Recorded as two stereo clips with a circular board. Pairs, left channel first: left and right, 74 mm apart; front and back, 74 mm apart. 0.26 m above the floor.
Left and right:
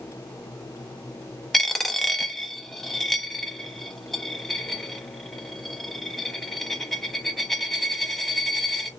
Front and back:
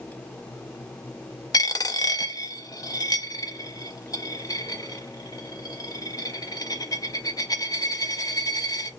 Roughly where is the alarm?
I don't hear an alarm.